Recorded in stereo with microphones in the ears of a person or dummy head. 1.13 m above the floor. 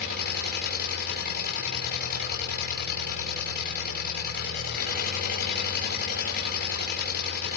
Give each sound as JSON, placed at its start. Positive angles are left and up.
{"t": 0.0, "sound": "an engine running", "side_deg": 50, "distance_m": 6.5}